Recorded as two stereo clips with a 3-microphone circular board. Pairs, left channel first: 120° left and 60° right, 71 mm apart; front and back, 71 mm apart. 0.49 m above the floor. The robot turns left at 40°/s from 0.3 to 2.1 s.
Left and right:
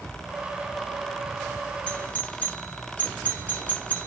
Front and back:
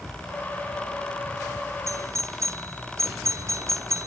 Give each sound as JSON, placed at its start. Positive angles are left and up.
{"t": 1.9, "sound": "a doorbell", "azimuth_deg": -170, "distance_m": 1.4}